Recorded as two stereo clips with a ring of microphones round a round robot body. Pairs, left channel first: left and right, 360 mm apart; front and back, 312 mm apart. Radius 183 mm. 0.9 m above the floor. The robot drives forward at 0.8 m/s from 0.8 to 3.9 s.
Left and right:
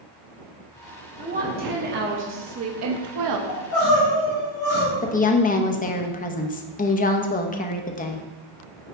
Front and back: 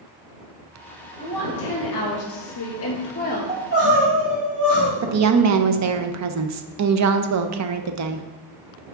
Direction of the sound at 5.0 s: 155° left.